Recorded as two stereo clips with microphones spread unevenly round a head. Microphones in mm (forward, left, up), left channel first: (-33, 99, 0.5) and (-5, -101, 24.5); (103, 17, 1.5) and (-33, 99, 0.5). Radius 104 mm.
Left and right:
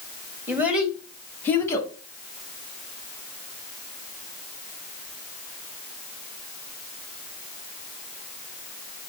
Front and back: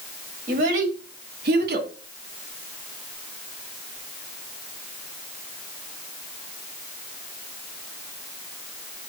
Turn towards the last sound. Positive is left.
turn(degrees=170)